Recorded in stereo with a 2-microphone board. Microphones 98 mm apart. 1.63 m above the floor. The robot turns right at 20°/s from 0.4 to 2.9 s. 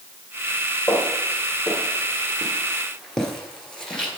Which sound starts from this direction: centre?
Footsteps, at 0.9 s.